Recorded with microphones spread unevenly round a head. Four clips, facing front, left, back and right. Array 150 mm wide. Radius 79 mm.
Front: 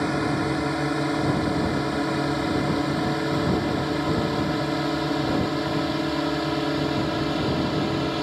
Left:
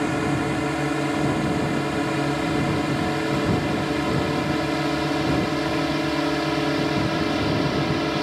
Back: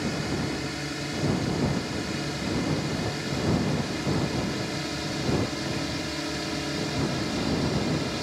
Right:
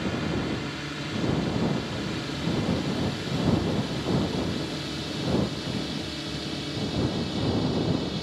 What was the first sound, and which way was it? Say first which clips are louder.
A drone: left 6 dB, front 6 dB; 50° left.